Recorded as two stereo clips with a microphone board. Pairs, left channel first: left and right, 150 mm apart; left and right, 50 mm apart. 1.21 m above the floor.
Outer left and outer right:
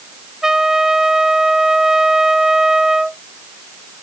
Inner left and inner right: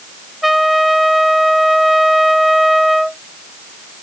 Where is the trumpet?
5° right (ahead or behind).